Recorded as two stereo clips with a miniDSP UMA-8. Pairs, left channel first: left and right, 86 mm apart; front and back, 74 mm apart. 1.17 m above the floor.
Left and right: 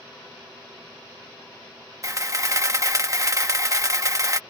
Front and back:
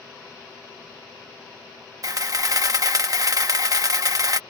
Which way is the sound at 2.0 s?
140° right.